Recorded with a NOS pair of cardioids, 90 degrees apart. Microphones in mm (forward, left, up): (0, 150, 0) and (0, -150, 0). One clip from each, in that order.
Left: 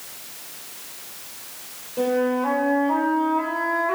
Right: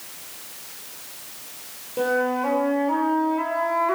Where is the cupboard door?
No cupboard door in this recording.